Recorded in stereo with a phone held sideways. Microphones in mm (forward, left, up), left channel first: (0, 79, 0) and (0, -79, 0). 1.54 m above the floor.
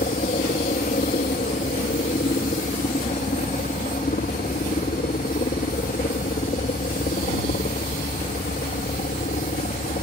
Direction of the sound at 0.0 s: 65° left (ahead or behind).